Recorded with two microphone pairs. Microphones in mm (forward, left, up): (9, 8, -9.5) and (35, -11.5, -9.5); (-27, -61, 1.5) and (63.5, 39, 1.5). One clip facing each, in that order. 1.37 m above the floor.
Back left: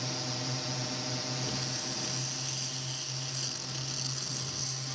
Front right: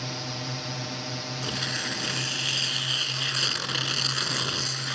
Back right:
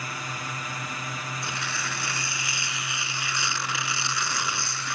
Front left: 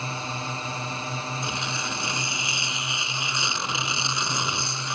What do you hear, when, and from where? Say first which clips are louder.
0.0 s a drone: front right 3 dB, front left 3 dB; 15° left; by 5.0 s 25° left
1.4 s tearing paper: front right 7 dB, front left 2 dB; 20° right